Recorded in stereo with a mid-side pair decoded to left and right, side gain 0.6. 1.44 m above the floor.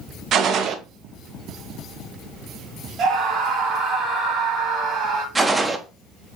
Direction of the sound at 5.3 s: 15° right.